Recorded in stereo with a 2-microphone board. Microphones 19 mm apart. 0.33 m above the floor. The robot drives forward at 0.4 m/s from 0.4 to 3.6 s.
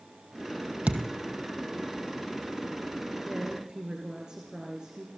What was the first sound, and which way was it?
A thud, 80° right.